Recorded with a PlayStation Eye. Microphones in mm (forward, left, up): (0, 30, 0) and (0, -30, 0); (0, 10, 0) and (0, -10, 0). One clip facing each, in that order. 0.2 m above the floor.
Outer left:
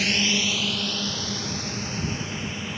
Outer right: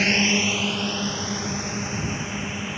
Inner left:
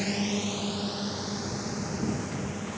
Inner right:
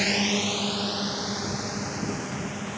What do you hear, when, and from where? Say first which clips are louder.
0.0 s a drone: outer right 3 dB, inner right 5 dB; 35° right (ahead or behind); by 2.8 s 15° right (ahead or behind)